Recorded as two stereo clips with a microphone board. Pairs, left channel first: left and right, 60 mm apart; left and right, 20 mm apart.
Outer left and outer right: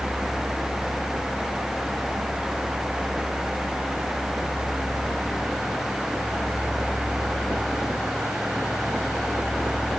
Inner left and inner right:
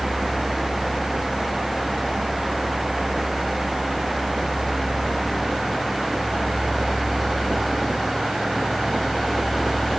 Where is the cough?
No cough in this recording.